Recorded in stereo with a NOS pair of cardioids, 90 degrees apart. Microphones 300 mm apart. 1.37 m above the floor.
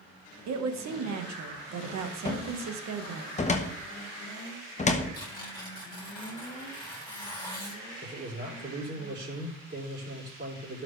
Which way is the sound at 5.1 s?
15° left.